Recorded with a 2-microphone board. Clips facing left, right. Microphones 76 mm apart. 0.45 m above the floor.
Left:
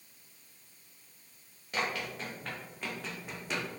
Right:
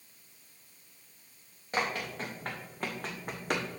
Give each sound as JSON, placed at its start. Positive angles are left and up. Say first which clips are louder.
{"t": 1.7, "sound": "running footsteps", "louder": "right 2 dB", "side_deg": -30, "distance_m": 3.0}